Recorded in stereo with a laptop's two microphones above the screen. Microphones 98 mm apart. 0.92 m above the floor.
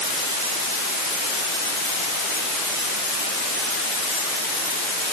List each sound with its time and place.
Only background noise.